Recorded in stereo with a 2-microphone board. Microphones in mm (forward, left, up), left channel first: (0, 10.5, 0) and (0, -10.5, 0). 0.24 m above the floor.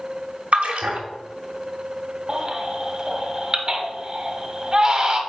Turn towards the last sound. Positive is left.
turn(degrees=-25)  # may be behind; listen again after turning